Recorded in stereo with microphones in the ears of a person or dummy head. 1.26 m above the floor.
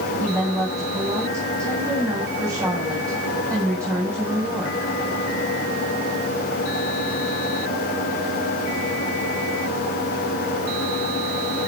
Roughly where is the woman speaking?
Centre.